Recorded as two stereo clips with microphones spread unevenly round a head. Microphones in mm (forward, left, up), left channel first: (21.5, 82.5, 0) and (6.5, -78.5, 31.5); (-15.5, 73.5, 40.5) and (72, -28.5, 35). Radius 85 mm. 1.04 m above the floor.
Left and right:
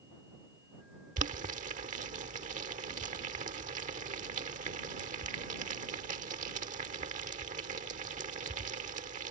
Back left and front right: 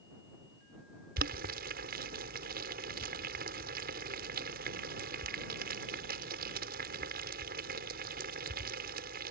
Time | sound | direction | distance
1.2 | boiling | 50° right | ?